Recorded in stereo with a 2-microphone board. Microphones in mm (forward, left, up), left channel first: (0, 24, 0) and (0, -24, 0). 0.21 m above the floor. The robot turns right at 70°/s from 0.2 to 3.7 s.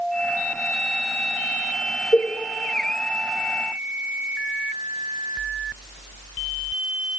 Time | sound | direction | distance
2.1 | a cowbell | 50° left (ahead or behind) | 1.6 m